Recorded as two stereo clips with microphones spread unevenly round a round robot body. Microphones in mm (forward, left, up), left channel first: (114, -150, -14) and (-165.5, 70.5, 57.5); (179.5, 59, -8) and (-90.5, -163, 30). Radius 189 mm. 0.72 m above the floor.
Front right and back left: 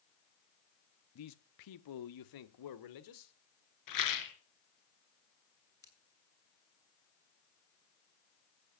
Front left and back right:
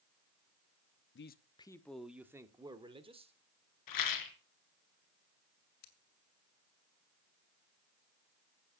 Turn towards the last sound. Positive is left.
turn(degrees=40)